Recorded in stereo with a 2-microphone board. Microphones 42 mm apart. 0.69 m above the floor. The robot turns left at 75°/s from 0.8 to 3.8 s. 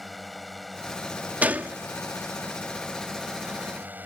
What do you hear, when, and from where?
0.0 s a drone: straight behind; by 4.1 s 45° right
1.4 s a gunshot: 40° right (ahead or behind); by 1.8 s 45° right (ahead or behind)